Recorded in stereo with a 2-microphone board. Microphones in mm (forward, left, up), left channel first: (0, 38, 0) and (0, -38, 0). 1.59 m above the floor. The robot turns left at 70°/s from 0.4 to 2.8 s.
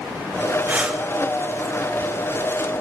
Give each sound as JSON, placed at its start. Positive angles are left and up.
{"t": 0.7, "sound": "breathing", "side_deg": -25, "distance_m": 0.8}